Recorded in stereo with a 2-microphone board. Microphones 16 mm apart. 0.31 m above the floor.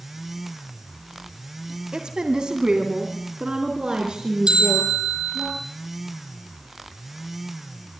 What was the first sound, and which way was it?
A woman speaking, 60° right (ahead or behind).